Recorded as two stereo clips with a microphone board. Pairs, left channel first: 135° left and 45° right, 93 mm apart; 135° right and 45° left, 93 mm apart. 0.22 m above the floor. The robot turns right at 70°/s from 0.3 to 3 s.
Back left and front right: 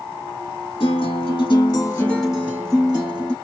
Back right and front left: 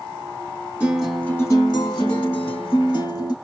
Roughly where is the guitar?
Behind left.